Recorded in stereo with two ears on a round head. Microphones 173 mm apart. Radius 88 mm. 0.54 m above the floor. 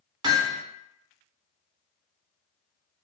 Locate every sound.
0.2 s hammering: 20° right (ahead or behind), 0.8 m